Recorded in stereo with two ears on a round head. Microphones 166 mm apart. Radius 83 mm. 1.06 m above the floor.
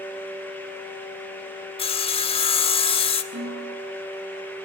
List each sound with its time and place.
1.8 s sawing: 30° left (ahead or behind), 1.3 m
3.3 s a snare drum: 65° right (ahead or behind), 9 m